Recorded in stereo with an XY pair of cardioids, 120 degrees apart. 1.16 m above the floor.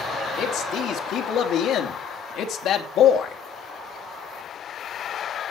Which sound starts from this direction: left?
A man speaking, at 0.4 s.